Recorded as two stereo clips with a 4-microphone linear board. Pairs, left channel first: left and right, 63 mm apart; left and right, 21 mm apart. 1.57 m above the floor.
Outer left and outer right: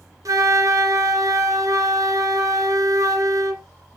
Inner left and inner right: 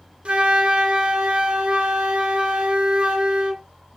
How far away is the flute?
About 0.7 m.